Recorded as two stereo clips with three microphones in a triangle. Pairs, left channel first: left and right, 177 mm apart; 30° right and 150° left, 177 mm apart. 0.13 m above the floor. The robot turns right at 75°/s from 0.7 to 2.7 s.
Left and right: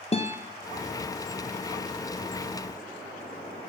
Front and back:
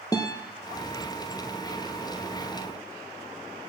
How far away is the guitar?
About 1.3 m.